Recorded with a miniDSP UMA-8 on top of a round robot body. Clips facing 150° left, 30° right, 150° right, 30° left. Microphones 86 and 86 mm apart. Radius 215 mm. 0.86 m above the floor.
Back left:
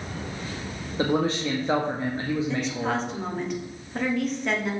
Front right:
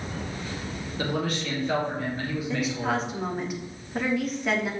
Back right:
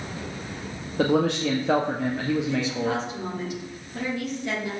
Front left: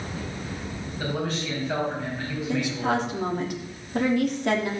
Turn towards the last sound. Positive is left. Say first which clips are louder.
# even, front left 1 dB
turn(degrees=60)